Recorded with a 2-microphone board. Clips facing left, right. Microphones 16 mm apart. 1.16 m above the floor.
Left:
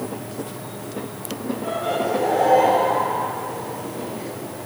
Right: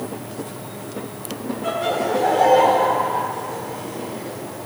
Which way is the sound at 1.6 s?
35° right (ahead or behind).